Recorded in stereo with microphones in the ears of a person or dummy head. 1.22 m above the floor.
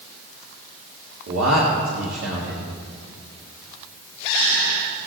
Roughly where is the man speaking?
Right.